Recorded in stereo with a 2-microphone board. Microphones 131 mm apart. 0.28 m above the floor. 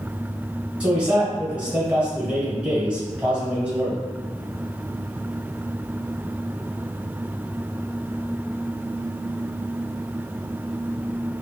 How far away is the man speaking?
About 1.4 m.